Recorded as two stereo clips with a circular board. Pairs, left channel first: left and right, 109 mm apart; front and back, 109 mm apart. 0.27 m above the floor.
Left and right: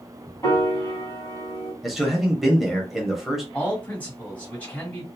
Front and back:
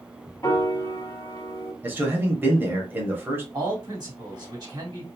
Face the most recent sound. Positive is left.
turn(degrees=155)